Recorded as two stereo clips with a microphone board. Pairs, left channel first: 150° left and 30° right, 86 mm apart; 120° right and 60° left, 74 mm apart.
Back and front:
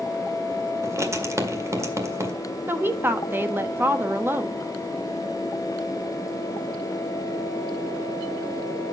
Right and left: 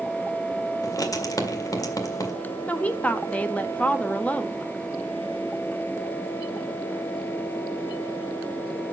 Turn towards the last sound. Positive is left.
turn(degrees=-70)